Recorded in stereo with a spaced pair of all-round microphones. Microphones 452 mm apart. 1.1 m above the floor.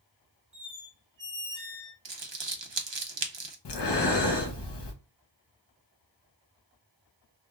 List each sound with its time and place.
0.5 s a squeak: 40° right (ahead or behind), 1.1 m
2.0 s crumpling: 70° right (ahead or behind), 0.6 m
3.6 s breathing: 65° left (ahead or behind), 0.7 m